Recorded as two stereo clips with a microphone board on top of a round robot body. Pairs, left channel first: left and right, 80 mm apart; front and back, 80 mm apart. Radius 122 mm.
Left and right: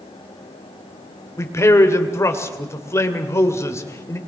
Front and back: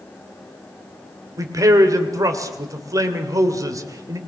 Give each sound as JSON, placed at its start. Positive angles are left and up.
{"t": 1.4, "sound": "a man speaking", "azimuth_deg": 140, "distance_m": 2.5}